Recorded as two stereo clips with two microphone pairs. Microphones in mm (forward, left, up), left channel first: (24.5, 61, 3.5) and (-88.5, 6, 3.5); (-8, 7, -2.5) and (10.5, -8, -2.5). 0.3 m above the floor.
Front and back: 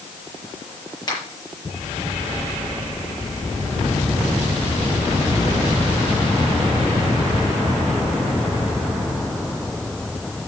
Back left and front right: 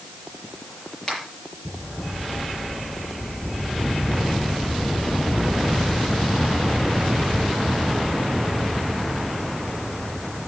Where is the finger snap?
80° left, 6.5 m.